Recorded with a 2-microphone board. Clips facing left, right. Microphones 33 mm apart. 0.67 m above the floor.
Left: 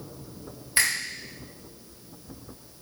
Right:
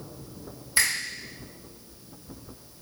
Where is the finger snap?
25° left (ahead or behind), 1.9 m.